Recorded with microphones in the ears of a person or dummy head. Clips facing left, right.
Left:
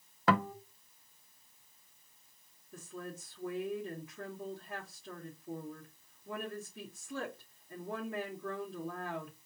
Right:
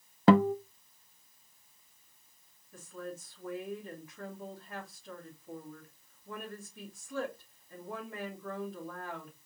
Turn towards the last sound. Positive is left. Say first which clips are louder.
# right 2 dB
turn(degrees=65)  # may be behind; listen again after turning